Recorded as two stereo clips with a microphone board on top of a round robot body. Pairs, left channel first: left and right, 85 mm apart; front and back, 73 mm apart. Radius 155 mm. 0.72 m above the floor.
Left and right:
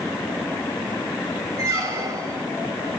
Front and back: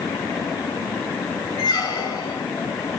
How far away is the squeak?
About 1.7 m.